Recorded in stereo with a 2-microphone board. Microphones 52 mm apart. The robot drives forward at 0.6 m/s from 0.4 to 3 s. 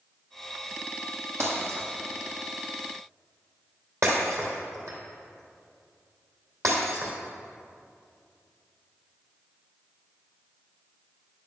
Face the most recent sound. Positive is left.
turn(degrees=-70)  # may be behind; listen again after turning